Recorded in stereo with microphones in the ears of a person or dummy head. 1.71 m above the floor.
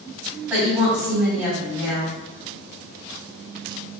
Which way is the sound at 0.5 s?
10° right (ahead or behind).